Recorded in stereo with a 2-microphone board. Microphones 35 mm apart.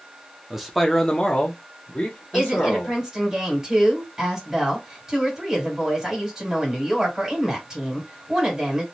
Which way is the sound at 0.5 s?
15° right (ahead or behind).